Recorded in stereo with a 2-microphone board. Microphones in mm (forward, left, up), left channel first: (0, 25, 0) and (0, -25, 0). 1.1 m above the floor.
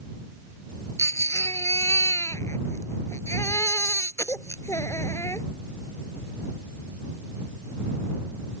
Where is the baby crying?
85° left.